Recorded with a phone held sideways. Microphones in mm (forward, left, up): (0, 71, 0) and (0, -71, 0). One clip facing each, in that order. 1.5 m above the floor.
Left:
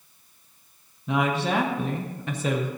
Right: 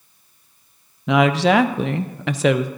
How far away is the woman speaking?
About 0.6 m.